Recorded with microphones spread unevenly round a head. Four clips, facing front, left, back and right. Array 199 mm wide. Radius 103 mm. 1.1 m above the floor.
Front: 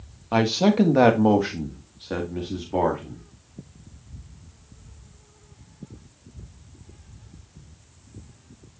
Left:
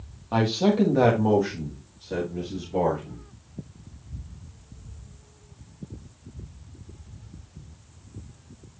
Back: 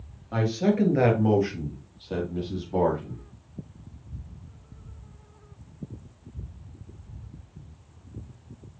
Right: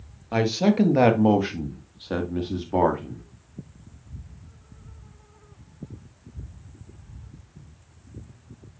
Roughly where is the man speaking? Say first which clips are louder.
Right 1 dB, front 5 dB; ahead.